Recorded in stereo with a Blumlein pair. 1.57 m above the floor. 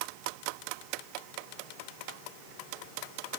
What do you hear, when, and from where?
Only background noise.